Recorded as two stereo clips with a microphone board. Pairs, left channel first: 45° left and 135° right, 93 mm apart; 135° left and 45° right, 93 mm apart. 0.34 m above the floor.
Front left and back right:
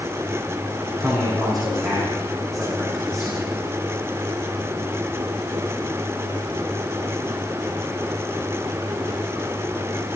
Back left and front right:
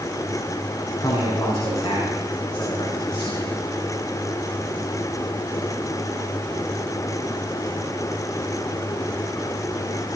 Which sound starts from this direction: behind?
A man speaking, at 1.0 s.